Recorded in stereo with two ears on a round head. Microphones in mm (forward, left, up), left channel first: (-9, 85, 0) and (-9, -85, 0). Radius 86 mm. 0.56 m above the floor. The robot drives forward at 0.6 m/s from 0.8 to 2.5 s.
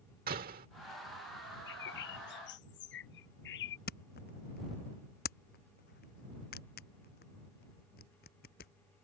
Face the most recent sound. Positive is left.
turn(degrees=55)  # may be behind; listen again after turning